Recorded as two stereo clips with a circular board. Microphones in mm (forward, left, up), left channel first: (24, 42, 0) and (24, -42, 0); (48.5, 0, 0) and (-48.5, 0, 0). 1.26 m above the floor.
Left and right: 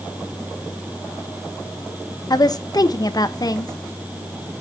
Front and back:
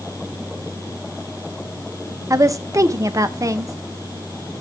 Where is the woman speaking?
125° left, 0.9 m.